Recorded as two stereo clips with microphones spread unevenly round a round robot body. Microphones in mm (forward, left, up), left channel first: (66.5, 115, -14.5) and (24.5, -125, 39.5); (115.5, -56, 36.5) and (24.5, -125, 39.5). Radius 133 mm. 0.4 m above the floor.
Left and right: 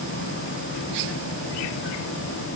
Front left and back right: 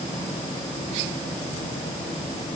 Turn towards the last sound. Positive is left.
No sound to turn to.